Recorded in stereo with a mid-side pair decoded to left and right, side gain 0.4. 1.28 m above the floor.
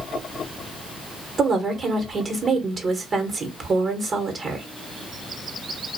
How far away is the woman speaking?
About 1.1 m.